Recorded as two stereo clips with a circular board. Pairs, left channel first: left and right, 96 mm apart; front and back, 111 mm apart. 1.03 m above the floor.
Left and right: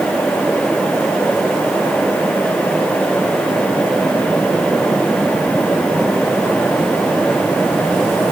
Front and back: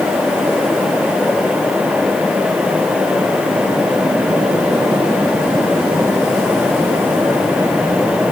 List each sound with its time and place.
Only background noise.